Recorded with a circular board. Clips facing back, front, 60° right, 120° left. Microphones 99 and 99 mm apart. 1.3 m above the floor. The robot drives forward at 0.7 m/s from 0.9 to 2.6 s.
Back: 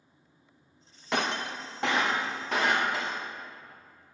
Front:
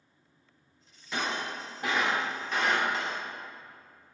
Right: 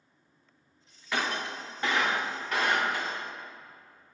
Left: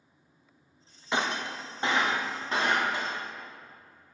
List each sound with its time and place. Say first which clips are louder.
1.1 s breaking glass: back 3 dB, left 1 dB; 175° right, 0.7 m; by 3.2 s straight behind, 1.7 m